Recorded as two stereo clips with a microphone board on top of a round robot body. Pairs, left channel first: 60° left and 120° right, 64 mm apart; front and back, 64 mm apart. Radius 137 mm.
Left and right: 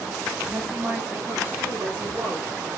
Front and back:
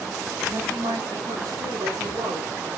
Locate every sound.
0.5 s a woman speaking: straight behind, 4 m